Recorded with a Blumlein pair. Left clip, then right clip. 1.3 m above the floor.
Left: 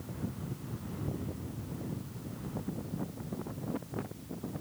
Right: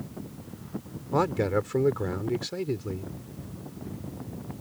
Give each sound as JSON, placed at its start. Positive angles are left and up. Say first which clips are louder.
{"t": 1.1, "sound": "a man speaking", "louder": "right 19 dB", "azimuth_deg": -45}